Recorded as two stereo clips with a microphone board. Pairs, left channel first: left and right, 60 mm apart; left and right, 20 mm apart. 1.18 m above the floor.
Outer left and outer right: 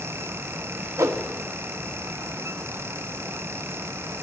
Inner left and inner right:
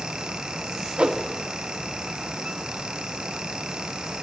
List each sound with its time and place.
1.0 s a whoosh: 60° right (ahead or behind), 1.0 m